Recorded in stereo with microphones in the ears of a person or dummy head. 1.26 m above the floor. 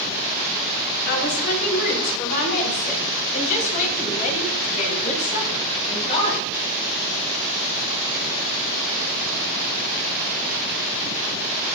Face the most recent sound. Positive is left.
turn(degrees=30)  # may be behind; listen again after turning